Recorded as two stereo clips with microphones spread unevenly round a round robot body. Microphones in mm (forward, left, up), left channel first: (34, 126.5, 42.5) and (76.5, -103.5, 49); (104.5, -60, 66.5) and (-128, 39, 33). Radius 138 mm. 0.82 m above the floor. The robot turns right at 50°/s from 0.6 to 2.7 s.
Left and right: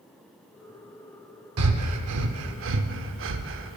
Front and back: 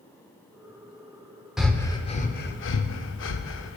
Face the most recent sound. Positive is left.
turn(degrees=-55)